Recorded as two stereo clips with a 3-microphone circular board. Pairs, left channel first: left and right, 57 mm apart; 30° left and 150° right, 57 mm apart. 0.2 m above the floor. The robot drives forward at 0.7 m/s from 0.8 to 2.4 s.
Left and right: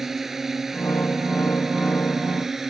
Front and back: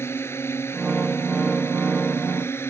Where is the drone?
5° right; by 2.7 s 10° right.